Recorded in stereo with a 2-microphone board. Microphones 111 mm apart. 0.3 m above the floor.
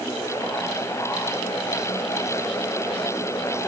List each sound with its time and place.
Only background noise.